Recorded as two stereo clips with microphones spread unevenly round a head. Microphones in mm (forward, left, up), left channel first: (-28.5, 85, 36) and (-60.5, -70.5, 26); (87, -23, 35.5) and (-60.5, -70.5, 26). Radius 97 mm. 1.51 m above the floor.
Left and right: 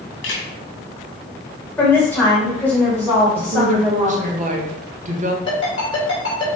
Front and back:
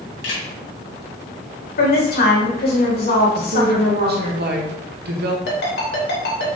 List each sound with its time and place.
0.2 s a camera shutter: 50° left, 2.5 m
1.8 s a woman speaking: 5° right, 3 m
3.4 s a woman speaking: 145° right, 1.6 m
5.5 s a ringtone: 15° left, 3 m